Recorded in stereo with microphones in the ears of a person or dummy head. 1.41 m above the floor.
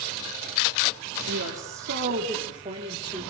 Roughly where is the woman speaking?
Right.